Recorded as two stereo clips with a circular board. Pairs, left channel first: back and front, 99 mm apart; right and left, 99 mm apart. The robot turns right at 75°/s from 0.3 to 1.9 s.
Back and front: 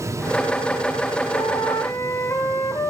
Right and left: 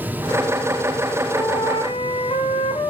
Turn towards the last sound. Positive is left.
turn(degrees=-120)